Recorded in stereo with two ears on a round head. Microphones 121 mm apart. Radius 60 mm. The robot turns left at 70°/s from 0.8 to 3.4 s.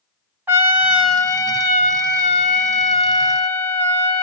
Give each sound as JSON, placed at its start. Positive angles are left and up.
{"t": 0.5, "sound": "a trumpet", "azimuth_deg": -165, "distance_m": 1.0}